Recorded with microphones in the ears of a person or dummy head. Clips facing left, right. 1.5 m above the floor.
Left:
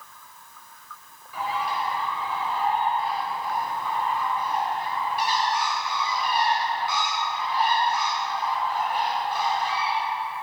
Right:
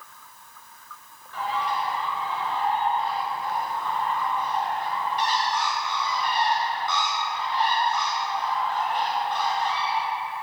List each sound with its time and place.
1.3 s a bird: 10° left (ahead or behind), 1.7 m